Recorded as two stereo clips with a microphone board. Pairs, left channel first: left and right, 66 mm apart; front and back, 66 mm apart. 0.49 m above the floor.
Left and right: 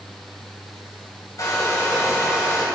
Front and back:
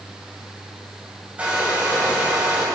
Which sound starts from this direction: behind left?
A hair dryer, at 1.4 s.